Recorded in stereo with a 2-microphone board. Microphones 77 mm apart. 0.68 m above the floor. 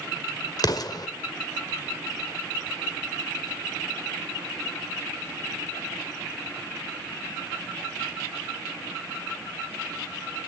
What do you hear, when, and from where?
0.6 s an explosion: 60° left (ahead or behind), 1.7 m